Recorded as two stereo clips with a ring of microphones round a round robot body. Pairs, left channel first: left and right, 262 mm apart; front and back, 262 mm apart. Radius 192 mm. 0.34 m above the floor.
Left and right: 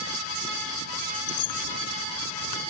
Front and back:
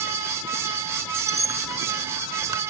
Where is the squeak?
100° left.